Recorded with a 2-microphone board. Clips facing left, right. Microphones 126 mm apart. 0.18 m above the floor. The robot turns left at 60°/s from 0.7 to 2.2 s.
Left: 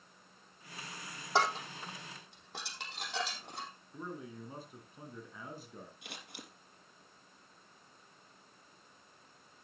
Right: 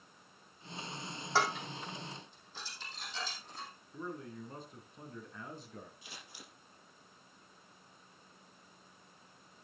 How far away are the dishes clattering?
About 4.5 m.